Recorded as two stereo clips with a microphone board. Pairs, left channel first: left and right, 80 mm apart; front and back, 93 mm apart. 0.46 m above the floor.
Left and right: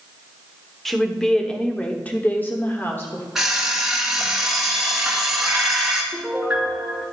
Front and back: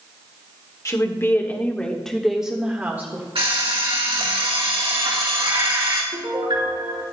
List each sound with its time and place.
0.8 s a woman speaking: 5° left, 1.3 m; by 3.2 s 130° left, 1.4 m
3.4 s an alarm clock: 175° right, 2.5 m
6.1 s a piano: 170° right, 3.5 m